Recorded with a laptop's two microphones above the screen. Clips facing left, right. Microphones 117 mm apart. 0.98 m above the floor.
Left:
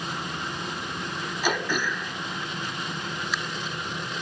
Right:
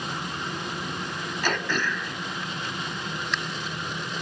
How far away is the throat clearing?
About 1.2 m.